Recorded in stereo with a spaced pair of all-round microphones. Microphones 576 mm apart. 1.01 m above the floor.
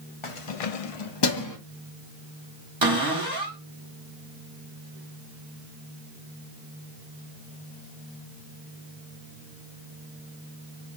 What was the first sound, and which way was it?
Keys jangling, 55° left (ahead or behind).